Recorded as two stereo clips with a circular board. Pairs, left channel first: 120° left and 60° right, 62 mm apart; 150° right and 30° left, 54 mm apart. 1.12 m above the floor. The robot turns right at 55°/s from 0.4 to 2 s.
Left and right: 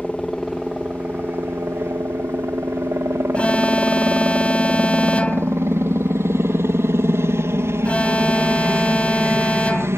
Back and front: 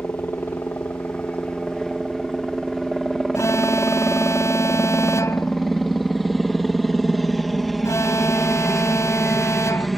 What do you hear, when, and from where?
0.0 s a helicopter: 150° right; by 10.0 s 60° right
3.3 s an alarm: 170° right